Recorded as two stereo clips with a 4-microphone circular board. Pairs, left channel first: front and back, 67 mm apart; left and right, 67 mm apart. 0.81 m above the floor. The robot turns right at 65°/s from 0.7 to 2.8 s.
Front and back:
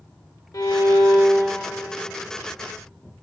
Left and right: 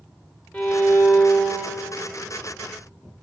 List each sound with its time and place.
0.5 s a violin: 15° left, 2.5 m; by 1.8 s 90° left, 2.5 m